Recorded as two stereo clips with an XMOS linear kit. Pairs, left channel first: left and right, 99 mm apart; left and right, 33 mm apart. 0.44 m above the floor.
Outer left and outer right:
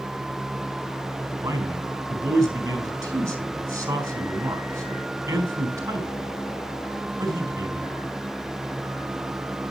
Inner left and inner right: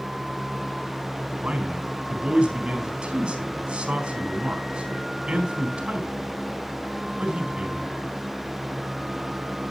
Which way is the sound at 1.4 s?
30° right (ahead or behind).